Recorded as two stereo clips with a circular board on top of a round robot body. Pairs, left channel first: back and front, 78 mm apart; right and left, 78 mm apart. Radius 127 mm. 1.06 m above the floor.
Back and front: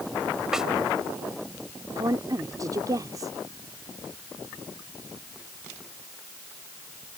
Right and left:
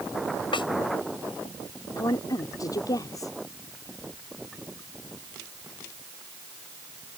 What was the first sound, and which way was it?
A snare drum, 85° right.